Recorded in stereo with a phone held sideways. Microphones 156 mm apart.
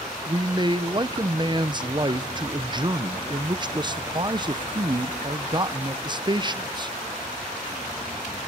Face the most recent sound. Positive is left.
turn(degrees=-30)  # may be behind; listen again after turning